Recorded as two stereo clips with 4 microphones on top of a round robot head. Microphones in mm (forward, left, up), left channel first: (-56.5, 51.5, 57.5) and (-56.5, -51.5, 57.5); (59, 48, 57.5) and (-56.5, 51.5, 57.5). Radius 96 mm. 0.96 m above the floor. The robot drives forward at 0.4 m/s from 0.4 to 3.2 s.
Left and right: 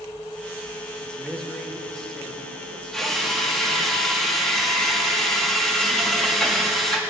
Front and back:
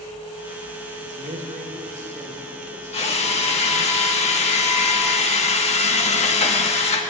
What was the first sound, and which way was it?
A man speaking, 170° left.